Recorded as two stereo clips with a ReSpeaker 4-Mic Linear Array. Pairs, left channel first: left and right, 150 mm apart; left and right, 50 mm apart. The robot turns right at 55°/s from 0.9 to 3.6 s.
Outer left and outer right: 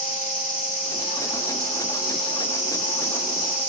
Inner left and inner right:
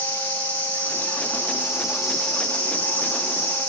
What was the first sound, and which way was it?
An insect, 70° right.